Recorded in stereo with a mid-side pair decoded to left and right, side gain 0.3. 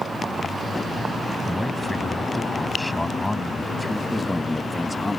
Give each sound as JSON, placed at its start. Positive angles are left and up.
{"t": 1.4, "sound": "a man speaking", "azimuth_deg": 20}
{"t": 4.1, "sound": "a man speaking", "azimuth_deg": 20}